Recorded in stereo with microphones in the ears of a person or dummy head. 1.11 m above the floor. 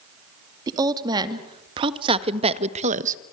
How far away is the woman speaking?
About 2.5 m.